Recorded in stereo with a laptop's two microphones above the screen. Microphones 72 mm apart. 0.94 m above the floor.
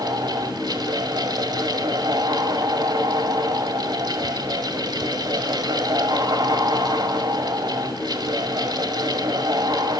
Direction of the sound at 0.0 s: 75° right (ahead or behind).